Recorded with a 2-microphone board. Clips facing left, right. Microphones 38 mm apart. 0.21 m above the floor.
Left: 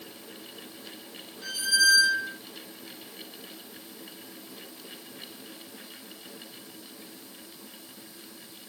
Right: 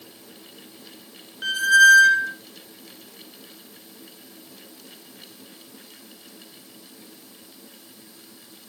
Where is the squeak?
60° right (ahead or behind), 0.5 m.